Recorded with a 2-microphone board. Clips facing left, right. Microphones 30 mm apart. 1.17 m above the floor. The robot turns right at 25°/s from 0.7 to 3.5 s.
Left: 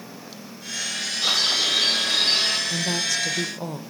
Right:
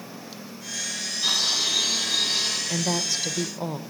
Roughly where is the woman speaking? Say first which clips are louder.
Left 2 dB; right.